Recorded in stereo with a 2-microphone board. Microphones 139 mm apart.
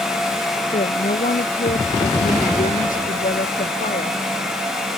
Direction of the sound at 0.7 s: 75° left (ahead or behind).